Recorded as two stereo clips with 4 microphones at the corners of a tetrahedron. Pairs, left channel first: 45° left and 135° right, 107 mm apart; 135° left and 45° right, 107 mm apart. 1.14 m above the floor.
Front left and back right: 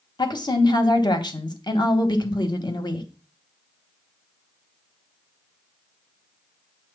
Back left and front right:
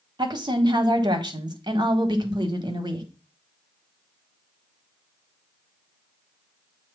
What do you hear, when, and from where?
0.2 s a woman speaking: straight ahead, 1.4 m